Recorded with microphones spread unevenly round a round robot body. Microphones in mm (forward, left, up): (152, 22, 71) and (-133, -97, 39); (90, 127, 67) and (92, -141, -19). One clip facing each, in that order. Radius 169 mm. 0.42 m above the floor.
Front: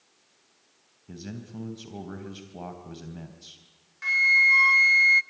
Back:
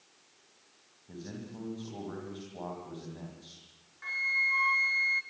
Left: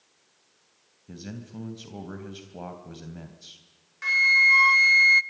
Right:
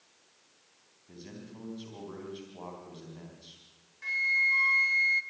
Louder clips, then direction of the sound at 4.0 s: Front 10 dB, left 9 dB; 70° left.